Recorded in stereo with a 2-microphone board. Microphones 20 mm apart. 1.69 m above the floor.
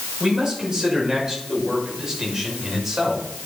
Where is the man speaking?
35° right (ahead or behind), 6.5 m; by 3.2 s 20° right (ahead or behind), 6.5 m.